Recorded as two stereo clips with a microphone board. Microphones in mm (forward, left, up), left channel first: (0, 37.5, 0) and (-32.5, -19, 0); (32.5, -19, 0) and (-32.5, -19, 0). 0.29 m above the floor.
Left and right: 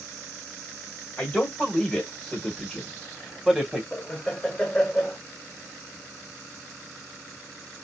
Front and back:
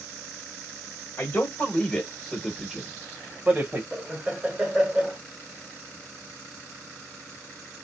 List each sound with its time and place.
1.2 s a man speaking: 10° left, 1.4 m; by 3.8 s 160° left, 1.4 m
3.9 s laughter: 120° left, 0.9 m